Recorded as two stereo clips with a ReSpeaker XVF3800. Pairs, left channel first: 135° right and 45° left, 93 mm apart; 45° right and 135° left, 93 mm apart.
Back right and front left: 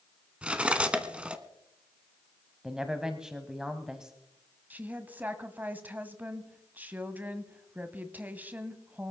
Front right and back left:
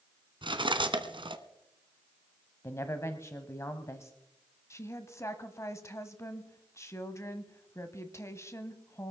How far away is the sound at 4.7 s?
About 1.2 m.